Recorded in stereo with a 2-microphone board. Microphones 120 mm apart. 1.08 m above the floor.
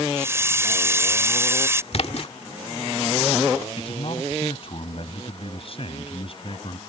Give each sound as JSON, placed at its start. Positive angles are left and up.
{"t": 0.2, "sound": "a hiss", "side_deg": -20}
{"t": 1.9, "sound": "a splash", "side_deg": 55}
{"t": 3.8, "sound": "a man speaking", "side_deg": 50}